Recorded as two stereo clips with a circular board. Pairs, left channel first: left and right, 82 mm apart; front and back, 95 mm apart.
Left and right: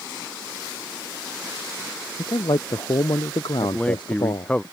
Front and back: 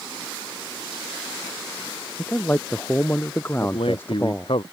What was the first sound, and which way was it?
A man speaking, 70° left.